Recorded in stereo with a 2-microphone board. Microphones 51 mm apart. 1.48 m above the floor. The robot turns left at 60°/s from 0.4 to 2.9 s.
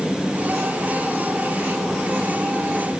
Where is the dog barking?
I don't hear a dog barking.